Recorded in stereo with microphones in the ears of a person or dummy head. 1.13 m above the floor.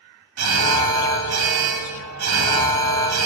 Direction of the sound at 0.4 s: 85° right.